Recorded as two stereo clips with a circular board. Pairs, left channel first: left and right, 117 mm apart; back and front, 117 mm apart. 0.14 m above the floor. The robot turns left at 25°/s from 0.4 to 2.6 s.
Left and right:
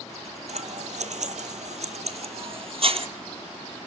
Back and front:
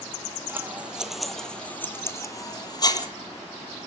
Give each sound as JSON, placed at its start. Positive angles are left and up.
{"t": 0.5, "sound": "scissors", "azimuth_deg": -70, "distance_m": 1.3}